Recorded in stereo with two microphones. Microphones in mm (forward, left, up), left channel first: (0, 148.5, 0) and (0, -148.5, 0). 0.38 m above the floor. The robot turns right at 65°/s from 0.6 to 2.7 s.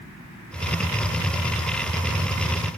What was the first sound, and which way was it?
Only background noise.